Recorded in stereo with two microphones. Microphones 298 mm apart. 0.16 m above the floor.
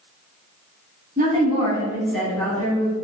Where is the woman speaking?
30° right (ahead or behind), 1.3 m; by 2.9 s 25° left (ahead or behind), 1.4 m.